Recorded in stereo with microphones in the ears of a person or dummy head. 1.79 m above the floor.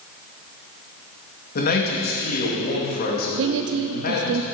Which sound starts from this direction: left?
A man speaking, at 1.6 s.